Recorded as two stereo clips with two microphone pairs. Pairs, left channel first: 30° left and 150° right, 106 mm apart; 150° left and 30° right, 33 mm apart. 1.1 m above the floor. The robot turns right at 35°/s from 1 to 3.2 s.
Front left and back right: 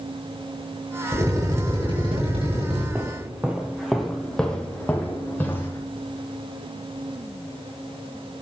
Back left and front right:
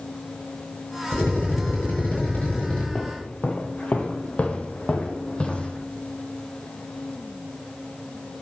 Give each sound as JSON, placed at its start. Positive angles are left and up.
{"t": 1.1, "sound": "a drill", "azimuth_deg": 145, "distance_m": 7.0}
{"t": 3.0, "sound": "footsteps", "azimuth_deg": 155, "distance_m": 1.3}